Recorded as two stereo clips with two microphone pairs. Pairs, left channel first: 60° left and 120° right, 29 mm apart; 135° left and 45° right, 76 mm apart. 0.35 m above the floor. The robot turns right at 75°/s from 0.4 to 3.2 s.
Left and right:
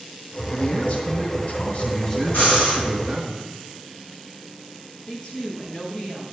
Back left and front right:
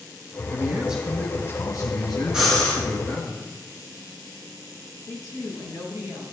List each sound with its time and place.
0.5 s a man speaking: 5° left, 2 m; by 3.3 s 155° right, 2 m
2.3 s breathing: 40° left, 3.5 m; by 2.8 s 75° left, 3.5 m
5.1 s a woman speaking: 105° left, 5 m